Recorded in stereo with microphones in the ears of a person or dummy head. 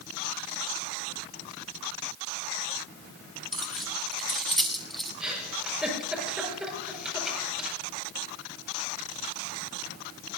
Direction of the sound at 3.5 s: 5° left (ahead or behind).